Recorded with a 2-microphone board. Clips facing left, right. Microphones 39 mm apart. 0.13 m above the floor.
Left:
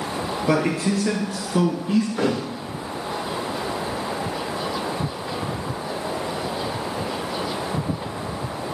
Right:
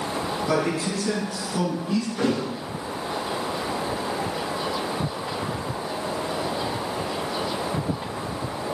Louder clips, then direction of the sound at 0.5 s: Left 4 dB; 45° left (ahead or behind).